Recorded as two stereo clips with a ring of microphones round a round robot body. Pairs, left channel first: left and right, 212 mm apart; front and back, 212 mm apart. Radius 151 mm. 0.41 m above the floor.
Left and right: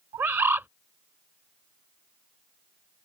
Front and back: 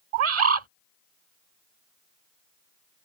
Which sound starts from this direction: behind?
A bird, at 0.1 s.